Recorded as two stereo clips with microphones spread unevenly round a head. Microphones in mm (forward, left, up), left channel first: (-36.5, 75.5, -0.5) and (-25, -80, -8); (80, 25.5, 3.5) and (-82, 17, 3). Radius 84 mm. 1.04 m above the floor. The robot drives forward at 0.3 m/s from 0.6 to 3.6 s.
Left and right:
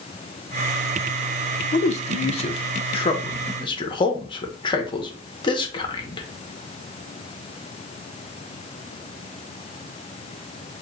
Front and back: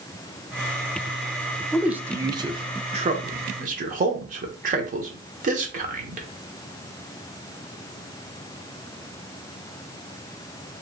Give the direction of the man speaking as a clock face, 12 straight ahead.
9 o'clock.